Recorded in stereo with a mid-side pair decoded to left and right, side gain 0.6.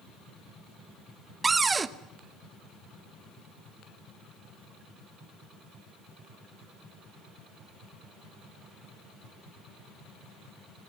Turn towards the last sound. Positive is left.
turn(degrees=-25)